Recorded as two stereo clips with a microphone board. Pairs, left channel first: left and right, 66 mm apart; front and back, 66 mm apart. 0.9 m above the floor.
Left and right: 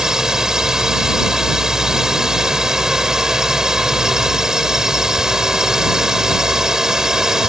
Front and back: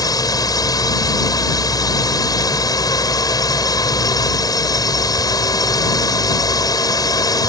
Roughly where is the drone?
Ahead.